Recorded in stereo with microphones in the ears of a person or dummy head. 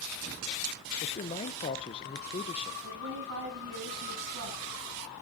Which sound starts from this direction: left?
A man speaking, at 1.0 s.